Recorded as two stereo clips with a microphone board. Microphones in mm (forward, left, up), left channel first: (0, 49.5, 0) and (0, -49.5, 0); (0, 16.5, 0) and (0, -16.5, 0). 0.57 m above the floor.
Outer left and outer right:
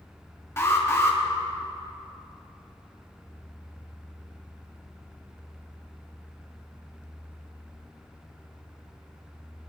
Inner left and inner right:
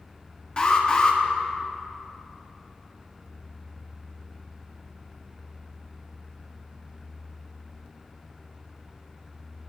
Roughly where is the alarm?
Left.